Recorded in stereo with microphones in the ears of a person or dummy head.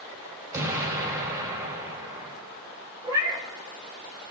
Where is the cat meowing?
15° right (ahead or behind), 1.2 m.